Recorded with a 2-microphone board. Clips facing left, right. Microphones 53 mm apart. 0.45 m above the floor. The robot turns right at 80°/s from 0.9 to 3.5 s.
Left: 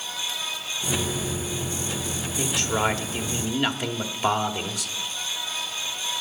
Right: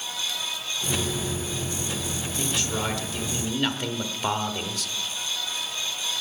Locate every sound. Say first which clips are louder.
2.4 s a man speaking: left 5 dB; 75° left, 1.3 m; by 4.9 s 165° left, 1.3 m